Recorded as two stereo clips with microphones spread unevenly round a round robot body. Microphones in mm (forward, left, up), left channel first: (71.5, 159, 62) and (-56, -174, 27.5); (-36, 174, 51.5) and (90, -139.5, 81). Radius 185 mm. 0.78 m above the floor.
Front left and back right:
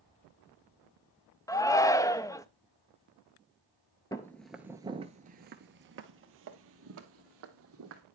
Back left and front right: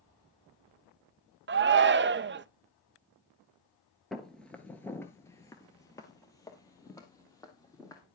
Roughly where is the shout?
Ahead.